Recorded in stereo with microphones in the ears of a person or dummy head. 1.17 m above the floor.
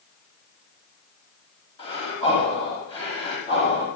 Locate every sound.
1.8 s breathing: 30° left (ahead or behind), 7 m